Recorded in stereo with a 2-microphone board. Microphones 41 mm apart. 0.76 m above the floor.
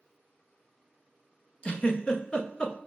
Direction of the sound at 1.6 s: 20° left (ahead or behind).